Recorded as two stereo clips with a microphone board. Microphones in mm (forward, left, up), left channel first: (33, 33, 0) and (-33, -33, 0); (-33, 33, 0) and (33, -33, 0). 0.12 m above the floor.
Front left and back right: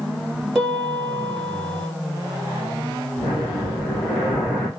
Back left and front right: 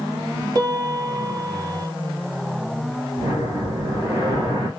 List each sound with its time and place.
0.6 s a piano: 40° right, 2.0 m
3.2 s breathing: 35° right, 2.5 m